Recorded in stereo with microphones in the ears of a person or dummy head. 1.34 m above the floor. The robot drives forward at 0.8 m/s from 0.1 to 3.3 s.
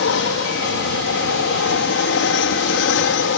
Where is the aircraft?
60° left (ahead or behind); by 3.4 s 55° left (ahead or behind).